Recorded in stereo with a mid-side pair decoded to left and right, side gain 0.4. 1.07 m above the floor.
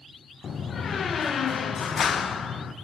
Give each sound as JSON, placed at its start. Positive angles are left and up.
{"t": 0.4, "sound": "a door slam", "azimuth_deg": 50, "distance_m": 0.5}